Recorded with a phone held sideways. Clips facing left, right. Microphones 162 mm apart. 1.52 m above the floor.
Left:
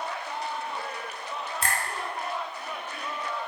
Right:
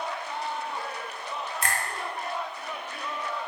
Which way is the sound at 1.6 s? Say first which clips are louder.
Even; 30° left (ahead or behind).